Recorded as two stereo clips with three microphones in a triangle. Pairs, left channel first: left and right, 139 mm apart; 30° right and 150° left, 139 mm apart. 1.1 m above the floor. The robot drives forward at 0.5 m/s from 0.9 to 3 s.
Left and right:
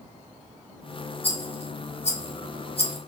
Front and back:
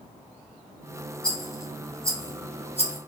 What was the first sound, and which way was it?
A rattle, 50° left.